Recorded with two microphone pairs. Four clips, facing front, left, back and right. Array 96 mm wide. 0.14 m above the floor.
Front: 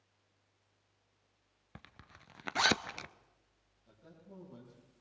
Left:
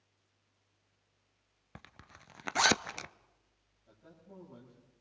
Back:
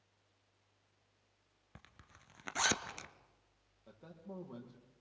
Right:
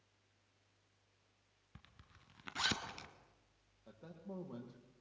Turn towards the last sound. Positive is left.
turn(degrees=-145)